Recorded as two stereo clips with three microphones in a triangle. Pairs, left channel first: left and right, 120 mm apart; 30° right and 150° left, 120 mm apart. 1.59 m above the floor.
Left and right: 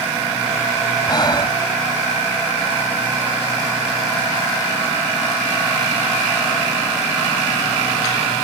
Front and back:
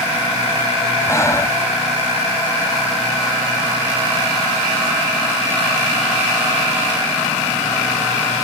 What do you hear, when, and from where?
1.1 s breathing: 35° left